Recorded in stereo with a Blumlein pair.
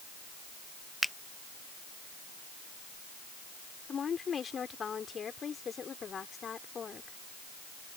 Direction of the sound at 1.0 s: 5° left.